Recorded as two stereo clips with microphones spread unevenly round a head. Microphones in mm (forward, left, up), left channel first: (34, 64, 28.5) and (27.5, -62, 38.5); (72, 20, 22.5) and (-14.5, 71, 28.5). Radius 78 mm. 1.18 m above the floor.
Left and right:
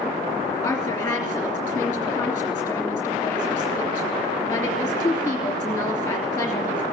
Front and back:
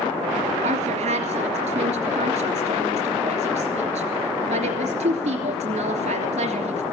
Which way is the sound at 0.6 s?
165° left.